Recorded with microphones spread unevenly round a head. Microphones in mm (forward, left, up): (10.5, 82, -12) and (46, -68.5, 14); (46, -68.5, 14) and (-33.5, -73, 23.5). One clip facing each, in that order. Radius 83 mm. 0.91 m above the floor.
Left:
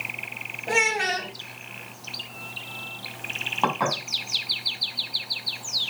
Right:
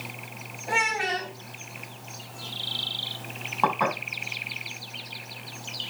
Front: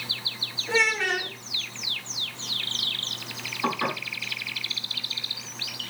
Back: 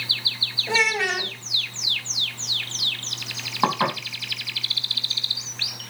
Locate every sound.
0.7 s a child speaking: 155° left, 4 m
3.6 s dishes clattering: 170° right, 4.5 m